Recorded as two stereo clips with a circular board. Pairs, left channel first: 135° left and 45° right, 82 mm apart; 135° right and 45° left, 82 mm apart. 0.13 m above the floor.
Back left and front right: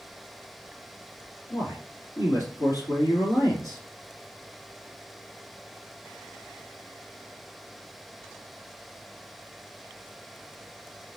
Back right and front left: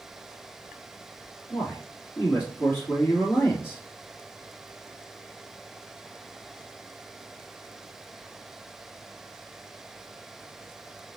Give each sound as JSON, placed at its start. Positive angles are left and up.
{"t": 1.5, "sound": "a man speaking", "azimuth_deg": 160, "distance_m": 3.0}